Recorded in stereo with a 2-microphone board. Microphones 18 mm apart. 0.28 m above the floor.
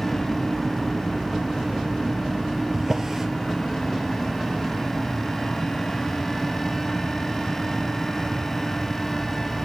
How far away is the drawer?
About 1.5 m.